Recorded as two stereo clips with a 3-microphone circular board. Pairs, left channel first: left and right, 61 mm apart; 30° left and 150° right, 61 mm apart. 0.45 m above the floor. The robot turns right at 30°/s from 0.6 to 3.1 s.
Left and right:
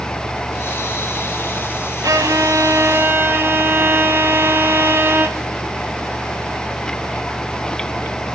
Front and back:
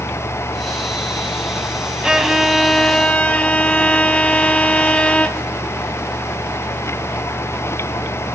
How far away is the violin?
About 0.9 m.